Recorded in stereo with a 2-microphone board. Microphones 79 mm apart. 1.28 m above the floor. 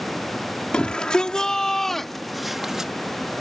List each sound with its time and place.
0.7 s a shout: 15° left (ahead or behind); by 2.9 s 5° right (ahead or behind)